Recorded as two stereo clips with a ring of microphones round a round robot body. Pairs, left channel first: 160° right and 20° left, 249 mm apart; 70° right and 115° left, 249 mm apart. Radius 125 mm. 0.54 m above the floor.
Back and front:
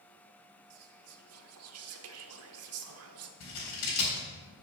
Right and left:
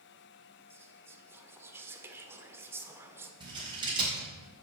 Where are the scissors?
175° right, 4 m.